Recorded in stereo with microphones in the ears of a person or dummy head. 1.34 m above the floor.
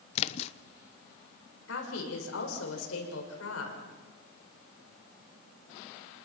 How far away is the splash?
About 0.8 m.